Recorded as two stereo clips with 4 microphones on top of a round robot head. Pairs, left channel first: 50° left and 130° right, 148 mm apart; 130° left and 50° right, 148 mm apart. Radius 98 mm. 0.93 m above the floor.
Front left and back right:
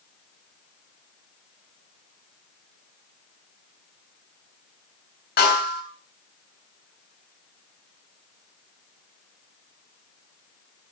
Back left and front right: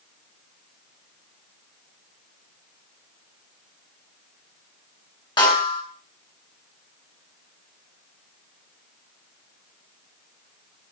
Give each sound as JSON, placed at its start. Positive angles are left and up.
{"t": 5.4, "sound": "a snare drum", "azimuth_deg": 70, "distance_m": 7.5}